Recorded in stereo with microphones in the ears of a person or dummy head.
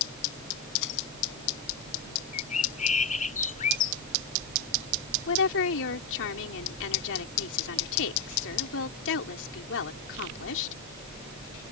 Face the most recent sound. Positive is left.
turn(degrees=75)  # may be behind; listen again after turning